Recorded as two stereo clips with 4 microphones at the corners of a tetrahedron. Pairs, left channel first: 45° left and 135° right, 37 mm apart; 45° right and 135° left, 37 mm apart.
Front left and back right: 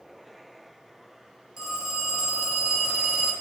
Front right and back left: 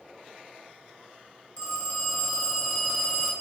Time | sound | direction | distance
1.6 | a phone ringing | 65° right | 1.2 m